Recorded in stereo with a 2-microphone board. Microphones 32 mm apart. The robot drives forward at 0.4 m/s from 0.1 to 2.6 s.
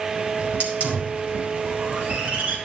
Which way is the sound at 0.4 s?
65° right (ahead or behind).